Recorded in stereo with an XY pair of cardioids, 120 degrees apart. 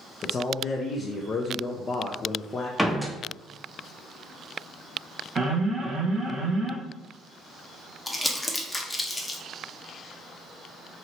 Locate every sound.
0.2 s a man speaking: 35° left, 0.5 m
2.8 s a door slam: straight ahead, 0.7 m
5.3 s an alarm: 35° right, 1.2 m
8.1 s crumpling: 10° left, 0.8 m